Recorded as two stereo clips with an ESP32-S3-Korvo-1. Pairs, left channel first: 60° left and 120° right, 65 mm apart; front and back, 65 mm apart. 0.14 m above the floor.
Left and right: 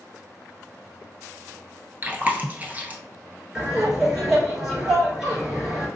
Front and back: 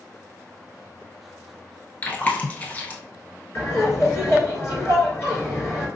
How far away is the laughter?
About 1.7 m.